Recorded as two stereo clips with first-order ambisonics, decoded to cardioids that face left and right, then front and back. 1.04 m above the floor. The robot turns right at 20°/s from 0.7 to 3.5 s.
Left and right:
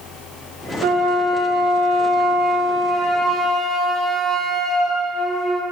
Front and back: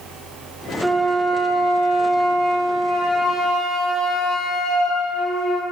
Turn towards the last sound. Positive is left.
turn(degrees=-30)